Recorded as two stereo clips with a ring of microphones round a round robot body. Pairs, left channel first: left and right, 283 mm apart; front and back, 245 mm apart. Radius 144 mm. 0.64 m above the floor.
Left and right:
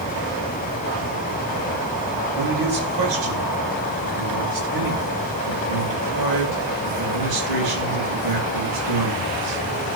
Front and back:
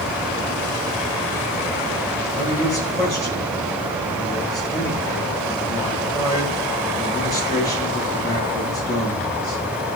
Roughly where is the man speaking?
Right.